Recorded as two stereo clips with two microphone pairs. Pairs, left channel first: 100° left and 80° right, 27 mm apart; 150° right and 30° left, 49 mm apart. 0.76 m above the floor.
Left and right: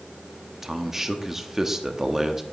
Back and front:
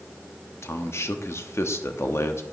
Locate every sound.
0.6 s a man speaking: 155° right, 0.9 m